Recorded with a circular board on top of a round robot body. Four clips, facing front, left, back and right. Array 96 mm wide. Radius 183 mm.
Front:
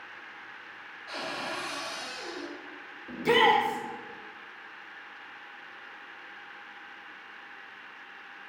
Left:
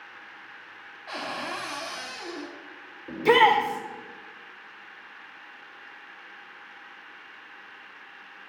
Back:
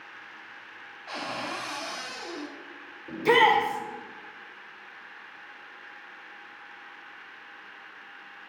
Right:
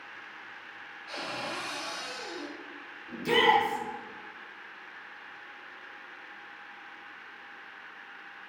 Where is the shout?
120° left, 1.8 m.